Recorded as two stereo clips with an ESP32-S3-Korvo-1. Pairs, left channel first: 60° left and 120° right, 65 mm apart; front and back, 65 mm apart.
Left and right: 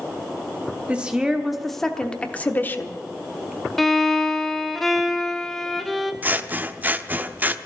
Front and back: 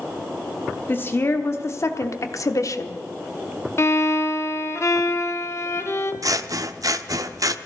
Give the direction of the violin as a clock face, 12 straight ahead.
1 o'clock.